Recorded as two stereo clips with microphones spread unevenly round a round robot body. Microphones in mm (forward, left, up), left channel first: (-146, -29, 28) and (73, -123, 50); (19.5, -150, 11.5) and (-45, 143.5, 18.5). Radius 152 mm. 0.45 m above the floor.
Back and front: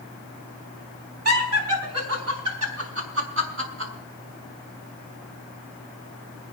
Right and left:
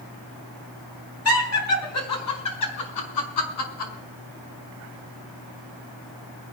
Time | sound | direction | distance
1.2 | laughter | 35° right | 6 m